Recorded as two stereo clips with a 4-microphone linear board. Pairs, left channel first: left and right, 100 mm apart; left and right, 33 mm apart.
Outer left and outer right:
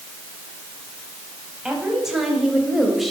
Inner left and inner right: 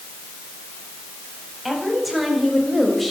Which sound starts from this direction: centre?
A woman speaking, at 1.6 s.